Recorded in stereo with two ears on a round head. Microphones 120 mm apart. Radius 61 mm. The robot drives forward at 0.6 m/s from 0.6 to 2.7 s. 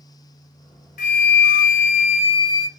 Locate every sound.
1.0 s a flute: 60° left (ahead or behind), 0.6 m; by 2.7 s 35° left (ahead or behind), 0.9 m